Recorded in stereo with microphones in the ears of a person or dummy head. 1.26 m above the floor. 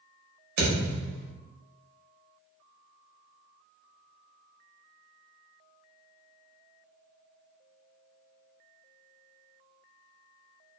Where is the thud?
45° right (ahead or behind), 0.9 m.